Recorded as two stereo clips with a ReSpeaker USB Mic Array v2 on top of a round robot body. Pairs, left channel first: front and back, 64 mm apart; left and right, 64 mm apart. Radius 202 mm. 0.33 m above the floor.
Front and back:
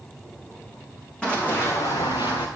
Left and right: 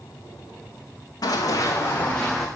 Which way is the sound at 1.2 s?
75° left.